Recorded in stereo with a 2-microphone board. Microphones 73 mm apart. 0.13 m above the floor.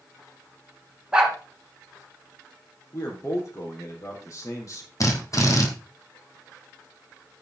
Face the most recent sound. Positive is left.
turn(degrees=45)  # may be behind; listen again after turning